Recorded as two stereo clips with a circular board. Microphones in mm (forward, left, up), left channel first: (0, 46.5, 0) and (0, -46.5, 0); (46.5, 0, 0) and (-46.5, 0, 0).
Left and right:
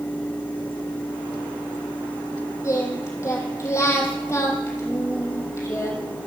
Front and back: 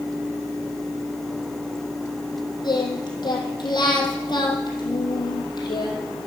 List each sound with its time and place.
2.6 s singing: 35° left, 3 m